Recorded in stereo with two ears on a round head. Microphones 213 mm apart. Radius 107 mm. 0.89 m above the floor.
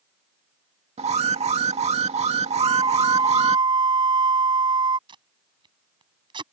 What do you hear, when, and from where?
1.0 s an alarm: 30° right (ahead or behind)
2.6 s a flute: 20° right (ahead or behind)
5.1 s tape being pulled: 20° right (ahead or behind)